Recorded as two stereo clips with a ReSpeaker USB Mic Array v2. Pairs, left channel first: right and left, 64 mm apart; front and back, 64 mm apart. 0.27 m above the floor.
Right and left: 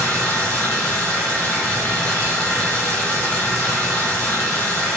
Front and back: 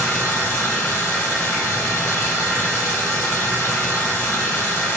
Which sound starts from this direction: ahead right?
Running water, at 0.0 s.